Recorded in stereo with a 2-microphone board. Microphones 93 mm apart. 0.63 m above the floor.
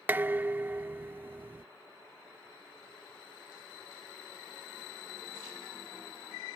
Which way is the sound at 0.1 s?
20° right (ahead or behind).